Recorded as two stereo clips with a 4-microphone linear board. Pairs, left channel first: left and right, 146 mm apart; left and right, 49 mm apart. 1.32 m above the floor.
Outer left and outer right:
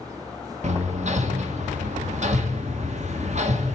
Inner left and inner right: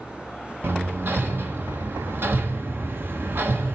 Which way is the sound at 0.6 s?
50° right (ahead or behind).